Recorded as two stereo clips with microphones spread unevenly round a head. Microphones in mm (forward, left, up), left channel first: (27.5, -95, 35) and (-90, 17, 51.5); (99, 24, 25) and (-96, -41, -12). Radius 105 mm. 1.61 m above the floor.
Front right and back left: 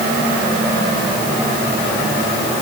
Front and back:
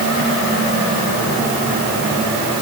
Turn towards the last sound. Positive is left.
No sound to turn to.